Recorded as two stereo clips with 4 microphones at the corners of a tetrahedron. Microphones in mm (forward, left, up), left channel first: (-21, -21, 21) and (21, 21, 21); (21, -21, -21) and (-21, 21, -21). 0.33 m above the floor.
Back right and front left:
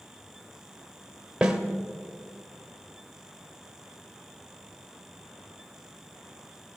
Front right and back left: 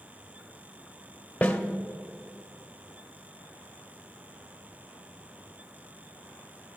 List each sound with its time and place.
1.4 s a snare drum: 20° right, 0.8 m